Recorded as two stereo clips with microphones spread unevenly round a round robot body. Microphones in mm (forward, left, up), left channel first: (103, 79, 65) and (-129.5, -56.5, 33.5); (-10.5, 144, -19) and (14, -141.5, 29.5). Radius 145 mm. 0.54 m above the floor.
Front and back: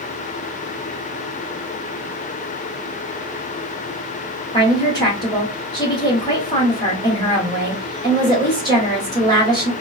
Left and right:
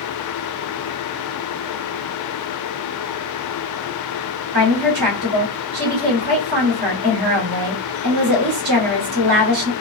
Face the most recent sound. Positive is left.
turn(degrees=-45)